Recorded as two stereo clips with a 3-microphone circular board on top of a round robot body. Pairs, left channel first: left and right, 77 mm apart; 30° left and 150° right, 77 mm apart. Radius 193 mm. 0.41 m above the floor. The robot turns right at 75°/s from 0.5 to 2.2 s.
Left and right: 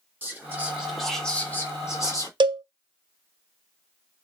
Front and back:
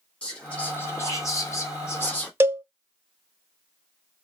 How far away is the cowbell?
About 0.5 m.